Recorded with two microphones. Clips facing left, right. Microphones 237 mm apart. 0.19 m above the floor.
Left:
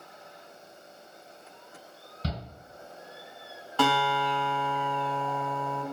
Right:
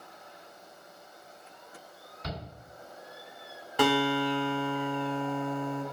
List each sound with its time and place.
2.2 s a shout: 35° left (ahead or behind), 1.7 m
3.8 s a guitar: 15° right (ahead or behind), 0.6 m